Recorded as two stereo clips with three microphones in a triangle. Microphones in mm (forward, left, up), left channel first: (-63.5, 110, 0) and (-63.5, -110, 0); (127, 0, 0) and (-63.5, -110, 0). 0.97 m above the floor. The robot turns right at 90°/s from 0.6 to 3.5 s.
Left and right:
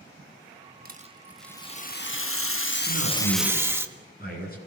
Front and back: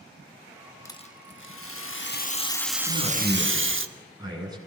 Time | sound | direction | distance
0.8 | a rattle | 50° right | 1.3 m
2.9 | a man speaking | 80° left | 9 m